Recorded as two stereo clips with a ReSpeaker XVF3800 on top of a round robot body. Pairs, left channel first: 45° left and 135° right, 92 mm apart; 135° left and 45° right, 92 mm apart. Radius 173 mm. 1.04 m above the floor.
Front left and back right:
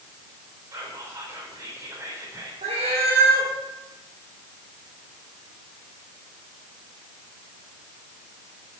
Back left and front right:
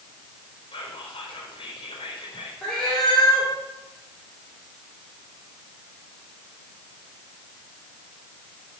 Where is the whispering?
165° left, 4 m.